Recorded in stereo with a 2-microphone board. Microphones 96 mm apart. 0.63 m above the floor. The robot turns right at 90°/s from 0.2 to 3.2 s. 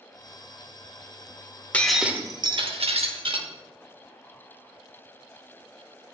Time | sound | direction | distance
1.7 | breaking glass | 165° left | 0.7 m